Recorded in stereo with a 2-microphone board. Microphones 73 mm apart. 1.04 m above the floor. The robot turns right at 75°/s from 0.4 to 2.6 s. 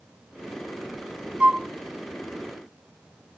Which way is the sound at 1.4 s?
20° right (ahead or behind).